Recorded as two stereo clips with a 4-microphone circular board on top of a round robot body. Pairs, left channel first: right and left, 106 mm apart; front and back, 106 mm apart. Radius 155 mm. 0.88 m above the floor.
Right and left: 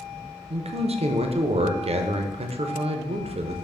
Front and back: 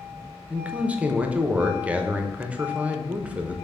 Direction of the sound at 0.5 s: 100° left.